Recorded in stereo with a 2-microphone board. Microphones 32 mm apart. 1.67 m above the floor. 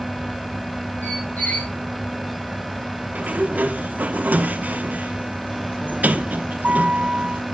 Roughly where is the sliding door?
Right.